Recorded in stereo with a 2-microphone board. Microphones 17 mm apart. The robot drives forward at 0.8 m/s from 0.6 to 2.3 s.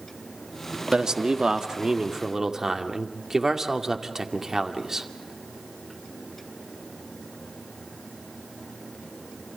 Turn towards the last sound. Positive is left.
turn(degrees=-35)  # may be behind; listen again after turning